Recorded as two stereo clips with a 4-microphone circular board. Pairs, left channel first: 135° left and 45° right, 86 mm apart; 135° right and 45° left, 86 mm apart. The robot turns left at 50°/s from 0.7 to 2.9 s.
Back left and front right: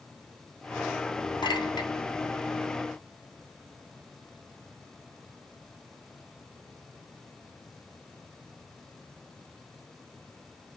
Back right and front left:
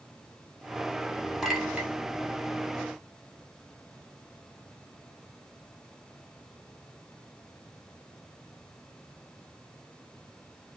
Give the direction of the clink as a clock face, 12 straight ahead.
8 o'clock.